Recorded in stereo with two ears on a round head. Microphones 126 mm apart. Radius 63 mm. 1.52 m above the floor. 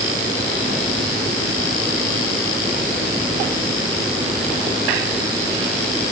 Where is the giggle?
I don't hear a giggle.